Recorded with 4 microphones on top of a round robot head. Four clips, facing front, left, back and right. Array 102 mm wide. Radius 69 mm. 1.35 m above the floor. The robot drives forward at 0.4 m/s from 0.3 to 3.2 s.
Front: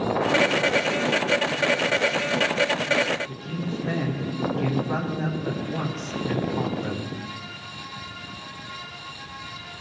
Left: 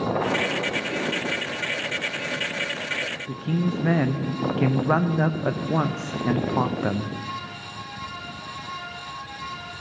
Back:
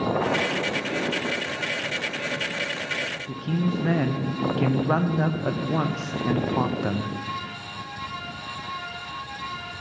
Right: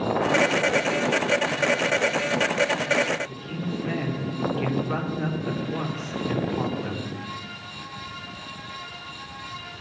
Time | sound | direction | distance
3.3 | a man speaking | 115° left | 1.1 m